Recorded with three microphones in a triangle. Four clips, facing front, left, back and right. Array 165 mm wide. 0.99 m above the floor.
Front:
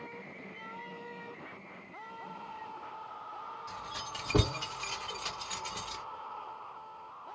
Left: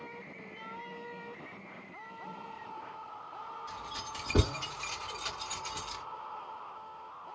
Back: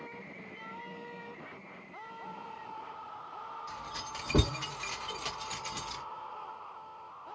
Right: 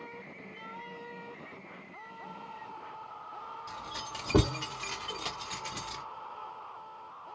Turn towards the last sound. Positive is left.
turn(degrees=-130)